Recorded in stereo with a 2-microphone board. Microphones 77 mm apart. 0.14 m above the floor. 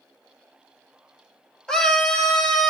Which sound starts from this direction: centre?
A scream, at 1.7 s.